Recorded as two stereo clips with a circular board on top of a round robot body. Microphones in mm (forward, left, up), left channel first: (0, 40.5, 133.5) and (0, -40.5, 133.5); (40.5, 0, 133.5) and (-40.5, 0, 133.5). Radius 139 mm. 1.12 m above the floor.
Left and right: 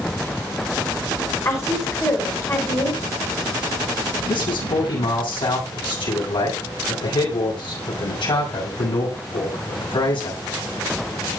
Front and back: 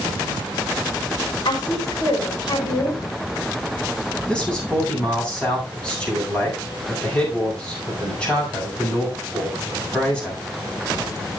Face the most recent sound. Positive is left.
turn(degrees=80)